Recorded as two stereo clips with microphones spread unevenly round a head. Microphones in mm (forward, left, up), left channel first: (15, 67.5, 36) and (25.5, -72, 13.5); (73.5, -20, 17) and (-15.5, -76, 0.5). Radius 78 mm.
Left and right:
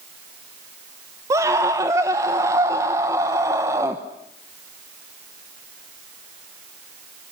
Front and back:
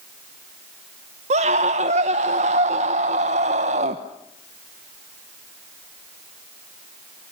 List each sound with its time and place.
1.3 s a scream: 160° right, 1.2 m